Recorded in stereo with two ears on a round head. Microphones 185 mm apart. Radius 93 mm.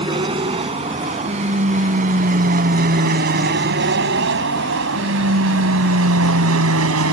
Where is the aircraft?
25° right (ahead or behind); by 7.1 s 75° right (ahead or behind).